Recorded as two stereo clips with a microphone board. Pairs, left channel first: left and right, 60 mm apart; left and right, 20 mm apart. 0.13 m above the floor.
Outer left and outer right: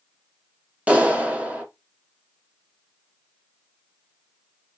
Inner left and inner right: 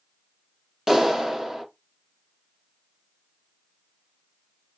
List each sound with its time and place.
0.9 s a clap: 20° right (ahead or behind), 1.2 m